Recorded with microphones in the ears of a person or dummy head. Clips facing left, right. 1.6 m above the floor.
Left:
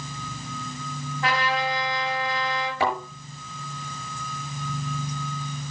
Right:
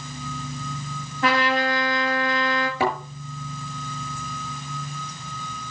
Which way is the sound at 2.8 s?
75° right (ahead or behind).